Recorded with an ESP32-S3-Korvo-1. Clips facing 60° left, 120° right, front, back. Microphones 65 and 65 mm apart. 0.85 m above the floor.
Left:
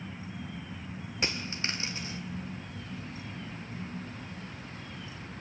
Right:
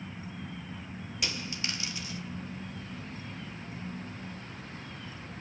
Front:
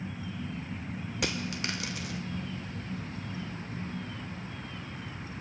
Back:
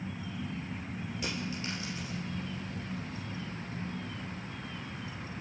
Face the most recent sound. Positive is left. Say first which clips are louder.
# left 3 dB, front 4 dB
turn(degrees=5)